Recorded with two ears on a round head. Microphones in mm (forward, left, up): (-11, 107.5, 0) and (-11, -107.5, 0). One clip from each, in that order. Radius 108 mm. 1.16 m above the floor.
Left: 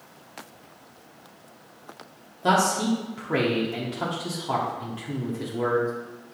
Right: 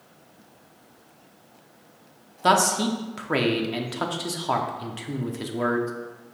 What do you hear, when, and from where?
2.4 s a man speaking: 40° right (ahead or behind), 0.9 m